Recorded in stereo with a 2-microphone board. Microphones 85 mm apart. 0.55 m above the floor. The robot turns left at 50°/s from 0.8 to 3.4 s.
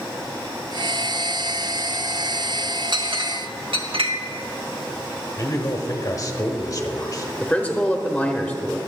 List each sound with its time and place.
2.9 s a clink: 55° right (ahead or behind), 1.3 m; by 4.1 s 75° right (ahead or behind), 1.3 m
5.4 s a man speaking: 40° left (ahead or behind), 1.1 m
7.4 s a man speaking: 10° left (ahead or behind), 1.2 m